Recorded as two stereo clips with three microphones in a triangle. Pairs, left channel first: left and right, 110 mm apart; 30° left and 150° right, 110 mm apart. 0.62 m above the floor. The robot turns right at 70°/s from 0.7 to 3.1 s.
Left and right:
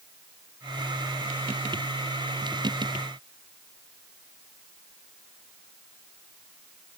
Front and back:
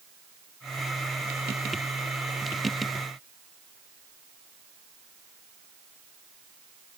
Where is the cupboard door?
No cupboard door in this recording.